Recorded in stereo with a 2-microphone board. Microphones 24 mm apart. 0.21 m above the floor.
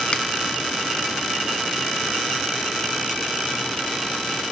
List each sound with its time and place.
0.1 s a finger snap: 40° left (ahead or behind), 1.9 m